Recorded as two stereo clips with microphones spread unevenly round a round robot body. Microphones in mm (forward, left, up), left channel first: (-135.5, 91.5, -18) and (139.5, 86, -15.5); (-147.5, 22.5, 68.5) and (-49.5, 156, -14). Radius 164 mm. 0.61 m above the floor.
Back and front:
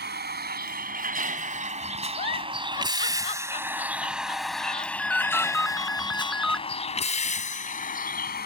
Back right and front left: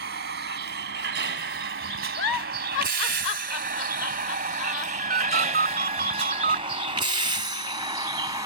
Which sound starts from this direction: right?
A giggle, at 2.2 s.